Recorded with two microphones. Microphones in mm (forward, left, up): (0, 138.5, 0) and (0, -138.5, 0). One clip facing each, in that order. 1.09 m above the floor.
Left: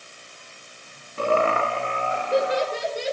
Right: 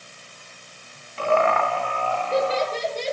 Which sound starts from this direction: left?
Laughter, at 1.2 s.